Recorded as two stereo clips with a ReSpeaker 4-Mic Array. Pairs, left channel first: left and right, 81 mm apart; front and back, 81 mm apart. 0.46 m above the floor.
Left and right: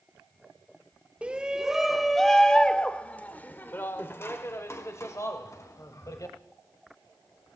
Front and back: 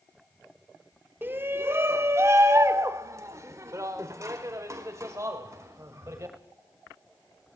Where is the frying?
I don't hear frying.